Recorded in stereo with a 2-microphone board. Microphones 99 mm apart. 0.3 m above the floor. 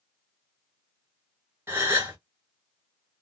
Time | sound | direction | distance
1.7 | a gasp | 20° right (ahead or behind) | 1.5 m